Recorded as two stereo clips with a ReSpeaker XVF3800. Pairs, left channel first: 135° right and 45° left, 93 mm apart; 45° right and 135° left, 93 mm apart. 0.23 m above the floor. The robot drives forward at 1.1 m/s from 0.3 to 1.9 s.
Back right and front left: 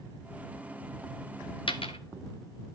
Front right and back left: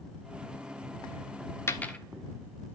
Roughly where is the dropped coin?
Right.